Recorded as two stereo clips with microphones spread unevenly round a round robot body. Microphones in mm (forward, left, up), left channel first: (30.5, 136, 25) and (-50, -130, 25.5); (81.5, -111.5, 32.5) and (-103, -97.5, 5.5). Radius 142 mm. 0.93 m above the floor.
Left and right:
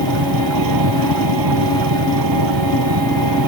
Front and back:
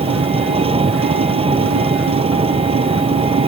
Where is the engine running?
125° right.